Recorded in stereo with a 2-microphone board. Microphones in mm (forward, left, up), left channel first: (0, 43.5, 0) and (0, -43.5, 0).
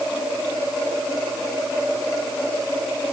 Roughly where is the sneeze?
No sneeze in this recording.